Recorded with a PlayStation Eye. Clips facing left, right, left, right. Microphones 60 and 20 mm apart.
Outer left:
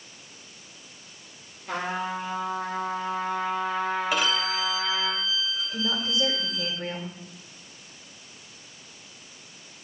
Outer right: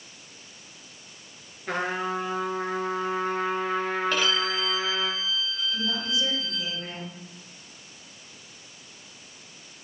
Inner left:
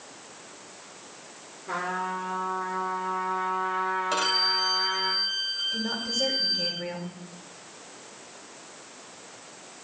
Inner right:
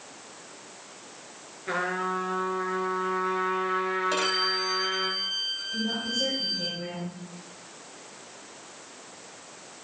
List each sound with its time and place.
1.7 s a trumpet: 60° right (ahead or behind), 2.5 m
4.1 s a violin: 10° left (ahead or behind), 1.6 m
5.7 s a woman speaking: 50° left (ahead or behind), 2 m